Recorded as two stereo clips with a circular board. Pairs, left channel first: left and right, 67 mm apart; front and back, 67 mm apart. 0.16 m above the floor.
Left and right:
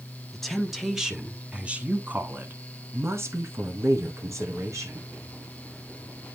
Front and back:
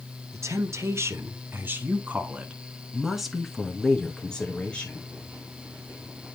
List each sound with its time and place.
0.3 s a woman speaking: 175° left, 1.5 m; by 5.1 s 65° right, 1.9 m